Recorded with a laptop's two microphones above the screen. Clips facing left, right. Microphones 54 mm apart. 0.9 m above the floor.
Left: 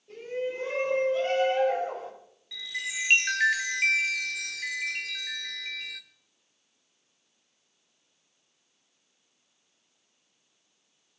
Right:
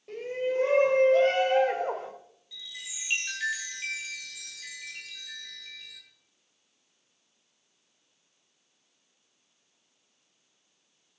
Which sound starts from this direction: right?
A shout, at 0.1 s.